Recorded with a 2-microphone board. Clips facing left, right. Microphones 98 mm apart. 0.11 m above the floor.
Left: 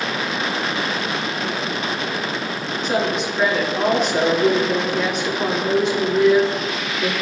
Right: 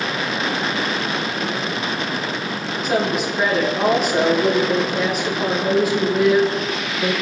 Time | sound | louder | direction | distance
2.8 | a woman speaking | right 1 dB | 5° right (ahead or behind) | 4 m